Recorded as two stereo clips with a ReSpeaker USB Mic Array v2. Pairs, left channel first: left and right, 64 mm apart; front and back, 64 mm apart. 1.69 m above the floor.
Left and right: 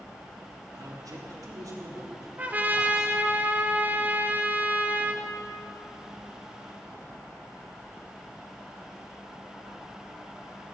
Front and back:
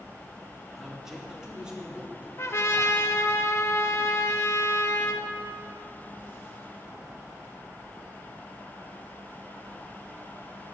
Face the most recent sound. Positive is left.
turn(degrees=-35)